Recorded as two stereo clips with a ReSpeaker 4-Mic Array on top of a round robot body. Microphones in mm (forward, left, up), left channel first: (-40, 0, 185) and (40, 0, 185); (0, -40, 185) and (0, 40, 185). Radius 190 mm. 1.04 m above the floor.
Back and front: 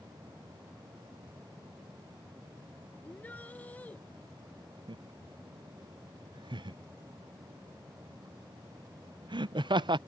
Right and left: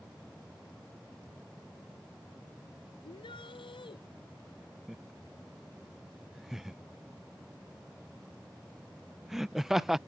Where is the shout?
110° right.